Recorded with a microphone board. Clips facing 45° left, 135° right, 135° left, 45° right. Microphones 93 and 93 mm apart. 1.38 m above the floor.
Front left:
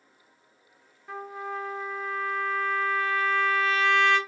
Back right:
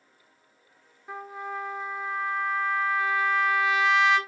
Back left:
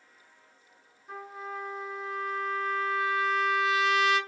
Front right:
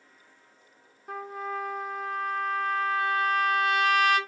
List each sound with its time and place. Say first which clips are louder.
1.1 s a trumpet: front left 1 dB, front right 5 dB; 65° right, 0.8 m